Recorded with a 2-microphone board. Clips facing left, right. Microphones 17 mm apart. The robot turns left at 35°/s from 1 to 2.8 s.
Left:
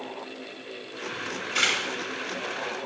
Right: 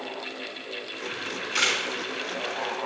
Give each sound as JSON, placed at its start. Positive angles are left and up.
{"t": 1.1, "sound": "a camera shutter", "side_deg": -20, "distance_m": 3.5}